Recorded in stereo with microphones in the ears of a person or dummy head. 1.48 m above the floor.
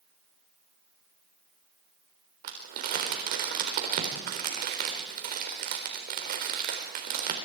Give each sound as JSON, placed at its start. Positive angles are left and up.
{"t": 2.4, "sound": "crumpling", "side_deg": -50, "distance_m": 4.0}